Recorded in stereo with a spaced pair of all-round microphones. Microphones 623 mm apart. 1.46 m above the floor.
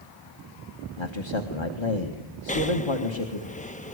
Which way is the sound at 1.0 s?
45° left (ahead or behind).